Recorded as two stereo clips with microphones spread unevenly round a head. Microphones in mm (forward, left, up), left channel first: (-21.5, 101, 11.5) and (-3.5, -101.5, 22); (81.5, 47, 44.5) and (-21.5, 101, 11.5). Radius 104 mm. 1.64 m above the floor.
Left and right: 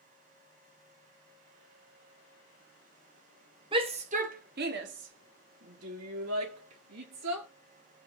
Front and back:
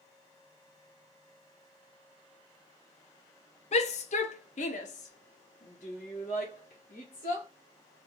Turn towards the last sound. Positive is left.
turn(degrees=-75)